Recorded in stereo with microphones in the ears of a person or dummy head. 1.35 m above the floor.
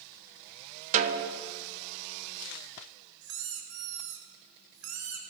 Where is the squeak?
65° right (ahead or behind), 1.9 m.